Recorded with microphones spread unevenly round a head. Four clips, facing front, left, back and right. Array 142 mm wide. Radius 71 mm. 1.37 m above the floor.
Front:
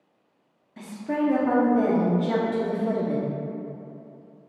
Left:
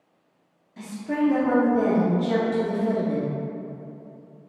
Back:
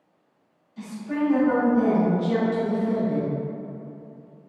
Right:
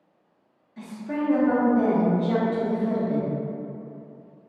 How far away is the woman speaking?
About 0.9 m.